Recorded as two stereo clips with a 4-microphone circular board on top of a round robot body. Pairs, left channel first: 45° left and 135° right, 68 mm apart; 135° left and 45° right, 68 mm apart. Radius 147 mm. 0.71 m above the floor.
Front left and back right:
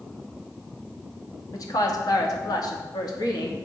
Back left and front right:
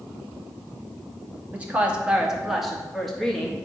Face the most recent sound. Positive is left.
turn(degrees=55)